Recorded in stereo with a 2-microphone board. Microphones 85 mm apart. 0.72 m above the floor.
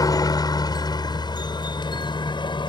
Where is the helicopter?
45° left (ahead or behind); by 2.7 s 65° left (ahead or behind).